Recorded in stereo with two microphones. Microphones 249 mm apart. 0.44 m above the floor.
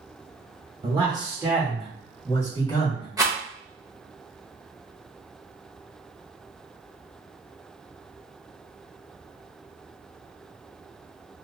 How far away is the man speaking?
About 1.5 m.